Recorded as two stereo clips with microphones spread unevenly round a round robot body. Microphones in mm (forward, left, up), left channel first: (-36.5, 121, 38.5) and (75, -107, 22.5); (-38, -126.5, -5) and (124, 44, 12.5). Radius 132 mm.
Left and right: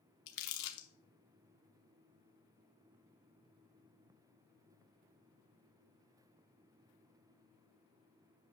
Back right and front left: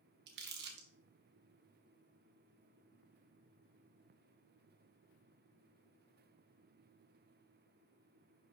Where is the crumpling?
100° left, 1.0 m.